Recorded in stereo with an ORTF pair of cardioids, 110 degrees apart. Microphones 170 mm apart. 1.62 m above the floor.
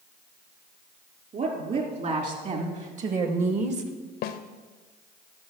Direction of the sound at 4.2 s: 70° left.